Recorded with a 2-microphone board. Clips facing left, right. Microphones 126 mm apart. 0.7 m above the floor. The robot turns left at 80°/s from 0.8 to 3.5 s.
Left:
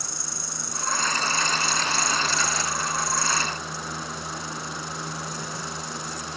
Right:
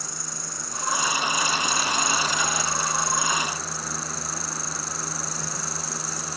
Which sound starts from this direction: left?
An insect, at 0.0 s.